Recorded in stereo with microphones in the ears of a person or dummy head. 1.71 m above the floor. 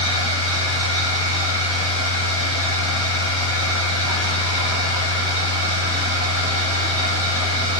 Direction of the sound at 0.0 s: 30° right (ahead or behind).